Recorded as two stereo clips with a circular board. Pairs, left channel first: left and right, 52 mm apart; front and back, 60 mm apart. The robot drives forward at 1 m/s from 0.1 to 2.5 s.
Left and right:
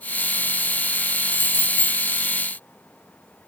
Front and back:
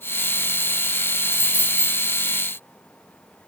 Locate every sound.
1.3 s keys jangling: 45° right, 1.4 m; by 2.0 s 80° right, 1.1 m